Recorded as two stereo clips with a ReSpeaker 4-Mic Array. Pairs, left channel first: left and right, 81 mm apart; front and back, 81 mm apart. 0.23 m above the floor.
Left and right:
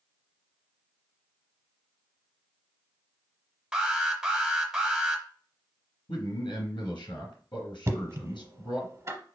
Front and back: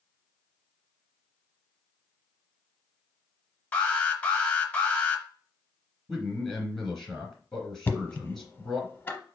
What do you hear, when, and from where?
3.7 s an alarm: 20° right, 0.8 m
6.1 s a man speaking: 85° left, 3 m
7.9 s knocking: 55° right, 0.8 m